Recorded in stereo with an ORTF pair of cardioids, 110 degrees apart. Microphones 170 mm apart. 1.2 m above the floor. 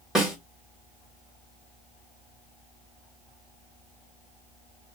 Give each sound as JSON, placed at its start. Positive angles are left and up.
{"t": 0.1, "sound": "a snare drum", "azimuth_deg": -5, "distance_m": 3.0}